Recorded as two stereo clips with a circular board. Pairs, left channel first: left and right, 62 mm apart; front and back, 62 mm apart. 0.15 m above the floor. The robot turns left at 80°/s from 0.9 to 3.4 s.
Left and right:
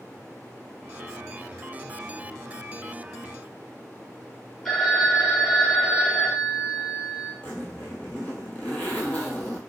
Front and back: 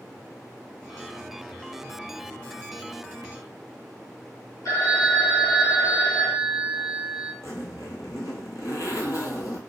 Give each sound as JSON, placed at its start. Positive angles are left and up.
{"t": 4.7, "sound": "a phone ringing", "azimuth_deg": 5, "distance_m": 1.5}
{"t": 7.4, "sound": "a zipper", "azimuth_deg": 25, "distance_m": 0.8}